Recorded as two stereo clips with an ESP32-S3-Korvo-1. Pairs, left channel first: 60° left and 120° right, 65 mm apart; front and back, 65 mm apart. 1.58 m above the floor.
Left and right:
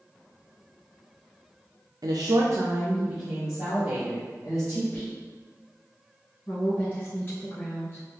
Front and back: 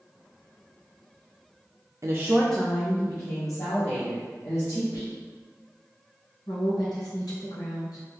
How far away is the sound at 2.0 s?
About 0.5 m.